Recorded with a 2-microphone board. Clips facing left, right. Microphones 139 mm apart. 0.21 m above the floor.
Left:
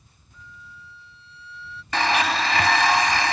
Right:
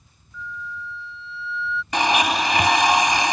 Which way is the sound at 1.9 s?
15° right (ahead or behind).